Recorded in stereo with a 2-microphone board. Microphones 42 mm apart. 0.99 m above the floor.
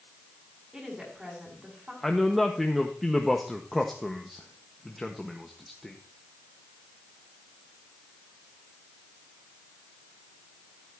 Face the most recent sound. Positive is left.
turn(degrees=5)  # may be behind; listen again after turning